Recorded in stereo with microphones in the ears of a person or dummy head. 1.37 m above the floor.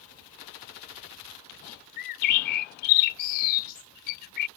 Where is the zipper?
I don't hear a zipper.